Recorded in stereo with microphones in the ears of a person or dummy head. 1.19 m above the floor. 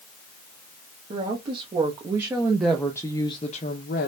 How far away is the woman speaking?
About 1.4 m.